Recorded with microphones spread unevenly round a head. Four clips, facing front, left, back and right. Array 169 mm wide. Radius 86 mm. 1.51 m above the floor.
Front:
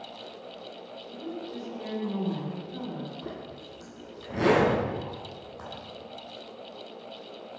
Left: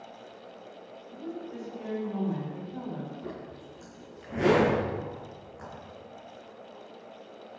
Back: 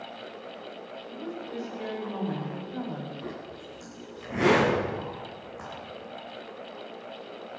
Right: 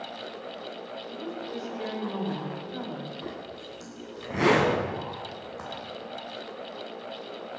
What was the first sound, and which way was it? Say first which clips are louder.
A woman speaking: right 1 dB, even; 105° right.